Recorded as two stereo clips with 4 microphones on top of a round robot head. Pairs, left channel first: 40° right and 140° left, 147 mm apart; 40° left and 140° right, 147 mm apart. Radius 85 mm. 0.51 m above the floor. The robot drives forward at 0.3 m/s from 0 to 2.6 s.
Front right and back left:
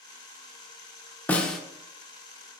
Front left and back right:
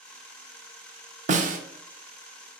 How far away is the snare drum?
About 0.6 m.